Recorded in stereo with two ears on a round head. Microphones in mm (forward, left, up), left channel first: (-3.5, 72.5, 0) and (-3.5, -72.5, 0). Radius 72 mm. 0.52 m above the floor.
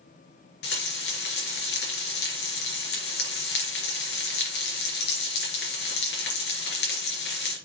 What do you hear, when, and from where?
0.6 s frying: 75° left (ahead or behind), 4 m